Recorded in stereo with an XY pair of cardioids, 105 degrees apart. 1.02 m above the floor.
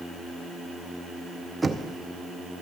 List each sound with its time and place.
1.6 s knocking: 20° right, 0.7 m